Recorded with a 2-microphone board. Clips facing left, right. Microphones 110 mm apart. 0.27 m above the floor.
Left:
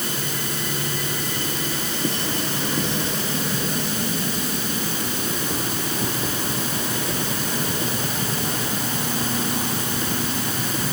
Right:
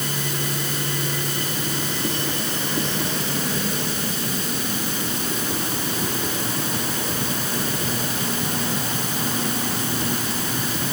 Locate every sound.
Only background noise.